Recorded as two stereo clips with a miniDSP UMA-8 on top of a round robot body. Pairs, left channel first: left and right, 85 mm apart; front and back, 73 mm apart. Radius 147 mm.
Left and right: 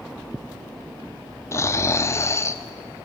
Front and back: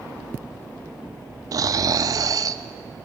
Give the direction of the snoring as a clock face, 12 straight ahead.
7 o'clock.